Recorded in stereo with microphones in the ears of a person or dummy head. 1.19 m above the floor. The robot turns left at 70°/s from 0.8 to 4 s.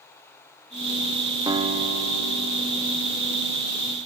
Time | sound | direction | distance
1.5 | a guitar | 10° right | 2 m